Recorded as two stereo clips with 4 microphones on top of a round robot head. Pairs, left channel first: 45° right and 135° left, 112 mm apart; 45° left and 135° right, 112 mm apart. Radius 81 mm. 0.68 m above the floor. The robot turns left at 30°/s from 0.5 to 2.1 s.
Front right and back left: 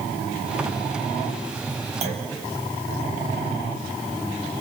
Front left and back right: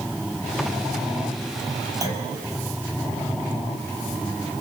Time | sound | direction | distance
2.0 | a clunk | 165° left | 3.5 m